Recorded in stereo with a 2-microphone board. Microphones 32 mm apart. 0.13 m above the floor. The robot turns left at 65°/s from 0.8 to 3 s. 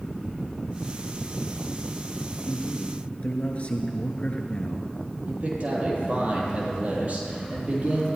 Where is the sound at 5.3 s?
50° right (ahead or behind), 4.5 m.